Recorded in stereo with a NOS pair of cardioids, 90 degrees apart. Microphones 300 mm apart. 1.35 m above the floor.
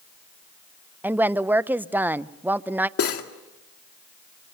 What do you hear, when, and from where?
1.0 s a woman speaking: 5° right, 0.6 m
3.0 s cutlery clinking: 50° left, 2.0 m